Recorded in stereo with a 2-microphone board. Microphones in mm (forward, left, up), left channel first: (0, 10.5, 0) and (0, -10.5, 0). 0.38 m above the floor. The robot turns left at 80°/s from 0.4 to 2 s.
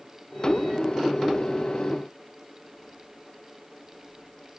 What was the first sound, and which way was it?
Only background noise.